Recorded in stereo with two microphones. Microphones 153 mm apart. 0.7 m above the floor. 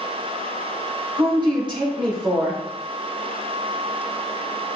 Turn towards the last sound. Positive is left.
turn(degrees=-30)  # may be behind; listen again after turning